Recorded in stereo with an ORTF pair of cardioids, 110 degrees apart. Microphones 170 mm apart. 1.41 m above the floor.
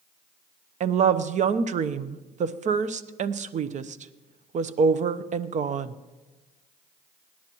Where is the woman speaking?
45° right, 0.9 m.